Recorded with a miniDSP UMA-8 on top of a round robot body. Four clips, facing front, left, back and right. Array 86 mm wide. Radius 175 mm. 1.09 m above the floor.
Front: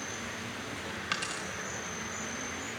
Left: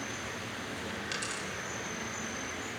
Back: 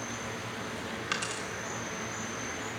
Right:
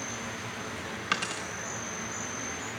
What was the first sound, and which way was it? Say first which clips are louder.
An insect: right 2 dB, back 2 dB; 130° right.